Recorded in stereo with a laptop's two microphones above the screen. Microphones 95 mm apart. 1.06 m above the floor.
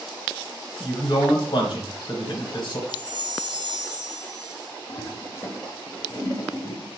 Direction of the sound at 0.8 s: 50° left (ahead or behind).